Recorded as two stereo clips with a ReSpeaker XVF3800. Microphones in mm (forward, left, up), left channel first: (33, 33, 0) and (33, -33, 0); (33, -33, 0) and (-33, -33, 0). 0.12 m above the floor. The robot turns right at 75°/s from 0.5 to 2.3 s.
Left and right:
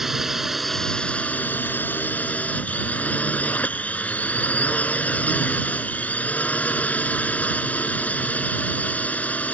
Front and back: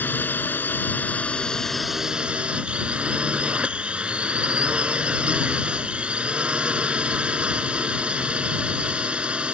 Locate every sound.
0.0 s a drone: 10° right; by 9.6 s 125° left